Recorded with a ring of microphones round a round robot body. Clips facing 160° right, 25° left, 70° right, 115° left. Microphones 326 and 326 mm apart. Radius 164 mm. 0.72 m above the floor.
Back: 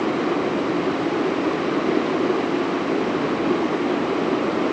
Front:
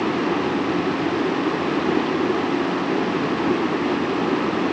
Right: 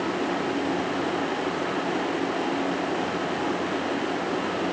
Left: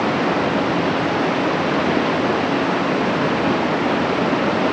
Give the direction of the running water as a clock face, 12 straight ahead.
8 o'clock.